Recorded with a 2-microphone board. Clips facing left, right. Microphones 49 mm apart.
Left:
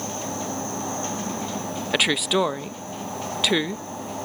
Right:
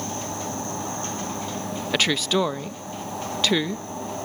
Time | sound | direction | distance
1.9 | a woman speaking | 10° left (ahead or behind) | 0.5 m